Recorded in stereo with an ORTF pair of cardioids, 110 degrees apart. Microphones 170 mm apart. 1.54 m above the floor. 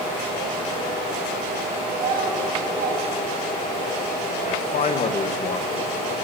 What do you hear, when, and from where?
1.9 s a child speaking: 65° right, 7.5 m
4.5 s a man speaking: 45° left, 2 m